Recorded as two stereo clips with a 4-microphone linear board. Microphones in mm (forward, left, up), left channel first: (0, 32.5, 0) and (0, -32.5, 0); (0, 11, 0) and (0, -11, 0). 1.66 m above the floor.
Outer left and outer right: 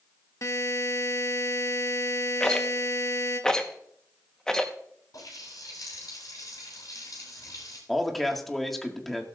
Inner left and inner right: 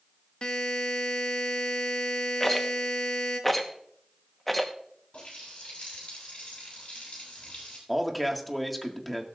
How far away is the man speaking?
About 1.8 m.